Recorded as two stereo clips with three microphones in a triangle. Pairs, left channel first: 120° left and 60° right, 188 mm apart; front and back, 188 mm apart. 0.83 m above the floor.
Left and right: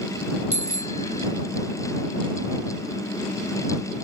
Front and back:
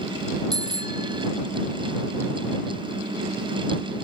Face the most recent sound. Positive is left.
turn(degrees=-110)